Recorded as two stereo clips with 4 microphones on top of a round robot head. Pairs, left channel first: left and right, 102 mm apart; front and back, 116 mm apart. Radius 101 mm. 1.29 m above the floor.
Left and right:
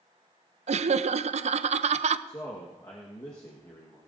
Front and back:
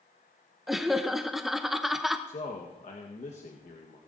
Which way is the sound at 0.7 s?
90° right.